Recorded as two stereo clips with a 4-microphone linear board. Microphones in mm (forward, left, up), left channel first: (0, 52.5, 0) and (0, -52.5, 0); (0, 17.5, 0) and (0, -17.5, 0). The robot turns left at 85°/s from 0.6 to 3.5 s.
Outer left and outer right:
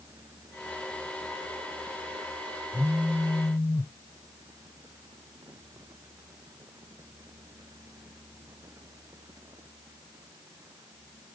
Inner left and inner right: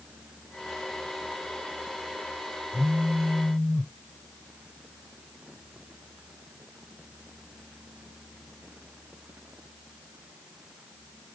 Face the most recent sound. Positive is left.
turn(degrees=125)